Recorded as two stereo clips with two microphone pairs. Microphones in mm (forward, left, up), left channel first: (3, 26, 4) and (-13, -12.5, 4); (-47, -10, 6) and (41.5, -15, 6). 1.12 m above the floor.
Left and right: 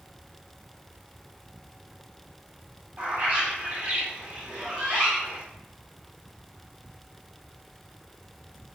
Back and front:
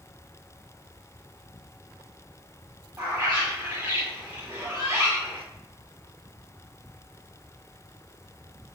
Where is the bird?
60° right, 1.4 m.